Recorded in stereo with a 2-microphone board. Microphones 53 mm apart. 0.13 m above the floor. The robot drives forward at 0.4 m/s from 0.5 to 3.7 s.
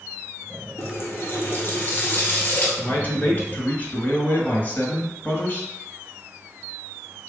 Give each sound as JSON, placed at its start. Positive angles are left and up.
{"t": 0.8, "sound": "a running tap", "side_deg": 45, "distance_m": 1.1}
{"t": 2.8, "sound": "a man speaking", "side_deg": 35, "distance_m": 1.6}